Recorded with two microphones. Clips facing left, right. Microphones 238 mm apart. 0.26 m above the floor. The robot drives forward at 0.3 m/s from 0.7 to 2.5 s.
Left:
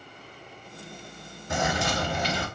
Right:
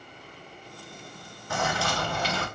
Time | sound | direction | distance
1.5 | a bird | 20° left (ahead or behind) | 1.4 m